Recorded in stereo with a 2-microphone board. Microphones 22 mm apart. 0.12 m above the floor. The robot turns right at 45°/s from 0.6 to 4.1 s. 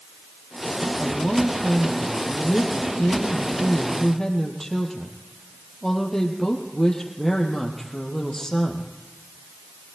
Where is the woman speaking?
25° left, 4 m; by 8.9 s 165° left, 4 m.